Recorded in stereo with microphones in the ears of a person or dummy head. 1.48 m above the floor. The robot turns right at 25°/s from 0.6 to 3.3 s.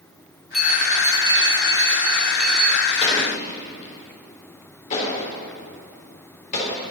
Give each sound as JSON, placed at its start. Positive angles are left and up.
{"t": 0.5, "sound": "a bell", "azimuth_deg": 175, "distance_m": 1.0}
{"t": 3.0, "sound": "an explosion", "side_deg": 30, "distance_m": 4.5}